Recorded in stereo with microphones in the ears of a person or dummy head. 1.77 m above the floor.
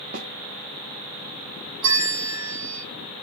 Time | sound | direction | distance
0.1 | a snare drum | 50° right (ahead or behind) | 0.6 m
1.8 | a bell | 70° right (ahead or behind) | 3 m